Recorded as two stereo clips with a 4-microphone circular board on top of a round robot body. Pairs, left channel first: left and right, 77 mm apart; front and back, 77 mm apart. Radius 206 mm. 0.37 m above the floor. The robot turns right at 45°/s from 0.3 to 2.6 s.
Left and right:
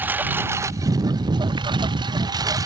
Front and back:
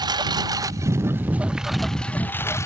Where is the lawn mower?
155° right; by 2.7 s 50° right.